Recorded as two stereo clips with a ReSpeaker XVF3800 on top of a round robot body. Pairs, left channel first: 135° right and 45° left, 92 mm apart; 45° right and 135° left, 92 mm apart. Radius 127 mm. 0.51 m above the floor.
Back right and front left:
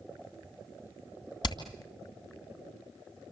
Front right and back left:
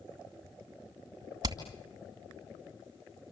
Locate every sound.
1.4 s hammering: straight behind, 2.5 m